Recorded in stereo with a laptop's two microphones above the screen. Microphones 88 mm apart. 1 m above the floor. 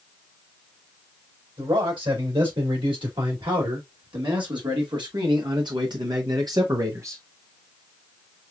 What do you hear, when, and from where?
1.6 s a man speaking: 70° right (ahead or behind), 4 m; by 7.2 s 30° right (ahead or behind), 0.9 m